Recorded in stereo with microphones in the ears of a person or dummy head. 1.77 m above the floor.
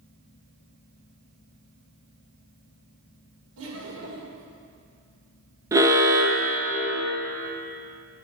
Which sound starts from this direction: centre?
An alarm, at 5.7 s.